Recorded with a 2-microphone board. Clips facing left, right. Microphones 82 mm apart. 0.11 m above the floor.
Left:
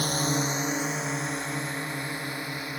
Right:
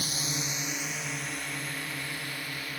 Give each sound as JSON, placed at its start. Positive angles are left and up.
{"t": 0.0, "sound": "a drone", "side_deg": 50}